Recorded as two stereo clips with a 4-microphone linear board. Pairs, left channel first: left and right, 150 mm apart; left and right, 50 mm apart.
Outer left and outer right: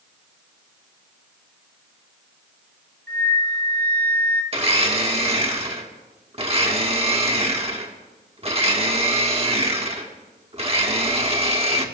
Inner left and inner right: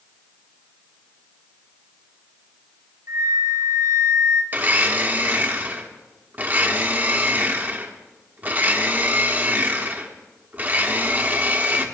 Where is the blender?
40° right (ahead or behind), 1.6 m.